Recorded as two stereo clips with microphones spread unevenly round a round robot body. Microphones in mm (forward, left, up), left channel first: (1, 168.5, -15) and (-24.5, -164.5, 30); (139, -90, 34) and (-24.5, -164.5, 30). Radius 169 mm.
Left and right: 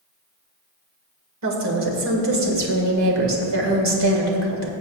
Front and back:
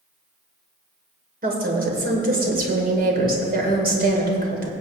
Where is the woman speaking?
135° right, 2.5 m.